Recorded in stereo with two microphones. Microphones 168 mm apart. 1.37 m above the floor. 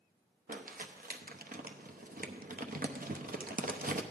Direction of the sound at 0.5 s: 60° right (ahead or behind).